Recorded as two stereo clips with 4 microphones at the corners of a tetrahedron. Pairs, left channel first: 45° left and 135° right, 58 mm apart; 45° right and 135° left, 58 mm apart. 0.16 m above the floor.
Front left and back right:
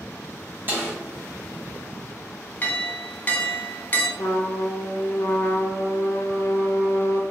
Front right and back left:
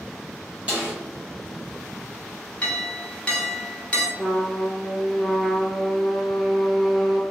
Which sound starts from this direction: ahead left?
A trumpet, at 4.2 s.